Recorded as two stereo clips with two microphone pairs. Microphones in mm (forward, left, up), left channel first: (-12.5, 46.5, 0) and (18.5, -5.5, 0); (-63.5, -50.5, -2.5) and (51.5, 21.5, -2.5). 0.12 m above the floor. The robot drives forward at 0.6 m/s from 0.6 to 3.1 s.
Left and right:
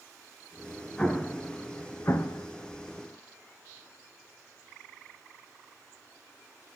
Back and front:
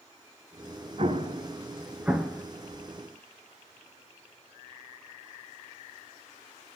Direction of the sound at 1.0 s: 50° left.